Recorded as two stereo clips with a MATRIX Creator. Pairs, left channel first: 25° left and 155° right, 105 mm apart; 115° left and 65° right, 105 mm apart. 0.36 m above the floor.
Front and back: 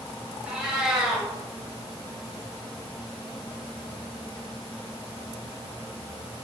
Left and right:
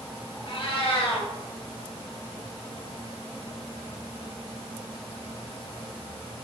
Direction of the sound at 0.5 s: 120° left.